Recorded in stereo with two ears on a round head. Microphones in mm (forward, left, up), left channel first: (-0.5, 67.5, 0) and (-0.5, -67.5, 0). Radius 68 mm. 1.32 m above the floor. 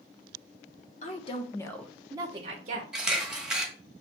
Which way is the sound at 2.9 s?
5° right (ahead or behind).